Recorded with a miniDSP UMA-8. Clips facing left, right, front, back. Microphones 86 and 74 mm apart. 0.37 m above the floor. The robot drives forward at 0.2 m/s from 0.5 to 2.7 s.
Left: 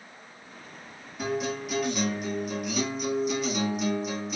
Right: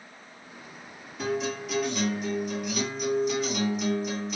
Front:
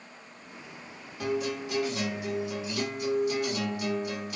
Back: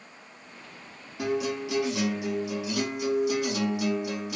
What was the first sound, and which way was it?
A guitar, 175° left.